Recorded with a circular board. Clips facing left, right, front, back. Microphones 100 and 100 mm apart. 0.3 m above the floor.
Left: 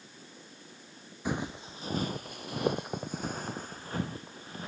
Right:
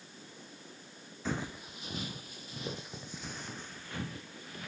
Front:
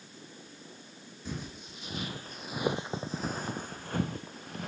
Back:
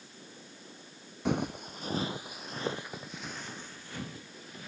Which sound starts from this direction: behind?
Footsteps, at 1.2 s.